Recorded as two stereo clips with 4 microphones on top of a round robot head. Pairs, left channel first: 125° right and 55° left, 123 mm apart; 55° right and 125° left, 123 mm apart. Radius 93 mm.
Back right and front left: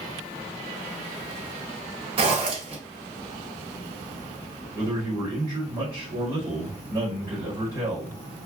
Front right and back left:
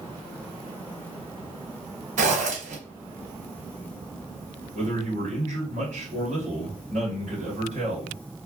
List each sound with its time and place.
2.2 s a zipper: 100° left, 1.8 m
4.8 s a man speaking: 120° left, 2 m